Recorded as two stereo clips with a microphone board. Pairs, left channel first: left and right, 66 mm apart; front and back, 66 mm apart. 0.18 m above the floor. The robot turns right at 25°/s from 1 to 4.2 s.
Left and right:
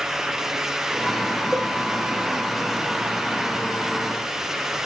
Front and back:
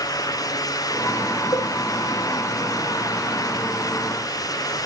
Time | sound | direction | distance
1.5 | a cowbell | 30° right | 7 m